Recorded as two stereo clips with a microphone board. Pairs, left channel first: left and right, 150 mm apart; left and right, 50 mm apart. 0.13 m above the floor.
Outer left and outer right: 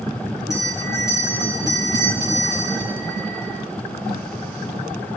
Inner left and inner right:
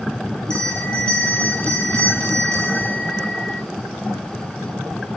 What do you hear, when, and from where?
0.5 s a bell: 20° left (ahead or behind), 6 m